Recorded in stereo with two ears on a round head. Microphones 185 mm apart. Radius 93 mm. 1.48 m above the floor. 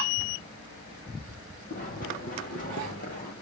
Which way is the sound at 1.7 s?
40° left (ahead or behind).